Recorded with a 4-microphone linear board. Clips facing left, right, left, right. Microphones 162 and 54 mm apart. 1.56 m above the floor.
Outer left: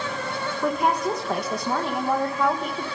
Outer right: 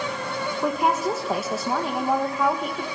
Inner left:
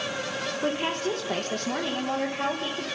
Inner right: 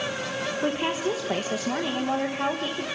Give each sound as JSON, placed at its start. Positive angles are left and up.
{"t": 0.6, "sound": "a woman speaking", "side_deg": -5, "distance_m": 1.8}